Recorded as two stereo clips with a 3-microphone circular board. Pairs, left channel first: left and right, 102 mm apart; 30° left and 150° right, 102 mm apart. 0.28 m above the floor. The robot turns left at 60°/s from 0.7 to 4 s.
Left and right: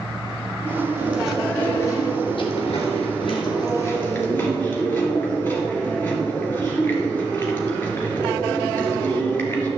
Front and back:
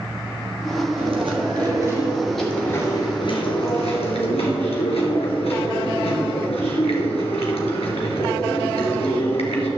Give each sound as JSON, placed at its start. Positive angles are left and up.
{"t": 1.0, "sound": "chewing", "azimuth_deg": -155, "distance_m": 2.5}